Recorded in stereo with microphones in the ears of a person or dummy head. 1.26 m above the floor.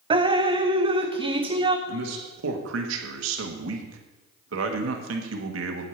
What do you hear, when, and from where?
0.1 s dripping: 30° right (ahead or behind), 0.6 m
1.9 s a man speaking: 80° right, 1.3 m